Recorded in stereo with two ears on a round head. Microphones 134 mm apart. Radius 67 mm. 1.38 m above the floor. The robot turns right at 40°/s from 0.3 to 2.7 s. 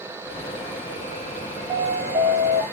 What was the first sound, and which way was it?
An alarm, 170° right.